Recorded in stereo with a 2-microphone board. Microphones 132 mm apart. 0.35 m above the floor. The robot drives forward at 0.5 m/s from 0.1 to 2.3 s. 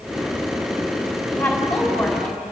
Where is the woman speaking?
10° left (ahead or behind), 3 m.